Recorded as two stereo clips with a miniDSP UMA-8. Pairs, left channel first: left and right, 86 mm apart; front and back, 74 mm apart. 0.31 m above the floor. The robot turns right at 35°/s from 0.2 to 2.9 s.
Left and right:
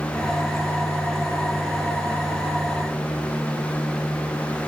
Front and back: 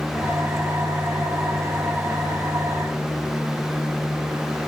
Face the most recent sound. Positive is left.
No sound to turn to.